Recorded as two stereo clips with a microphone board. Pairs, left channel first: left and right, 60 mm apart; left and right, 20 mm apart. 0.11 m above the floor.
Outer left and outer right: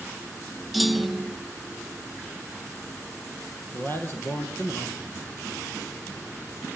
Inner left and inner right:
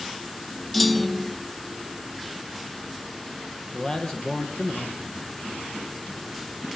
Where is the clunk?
Centre (ahead or behind), 0.5 m.